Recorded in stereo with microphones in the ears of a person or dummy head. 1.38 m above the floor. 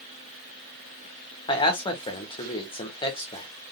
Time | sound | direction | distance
1.5 | a man speaking | 25° left (ahead or behind) | 1.6 m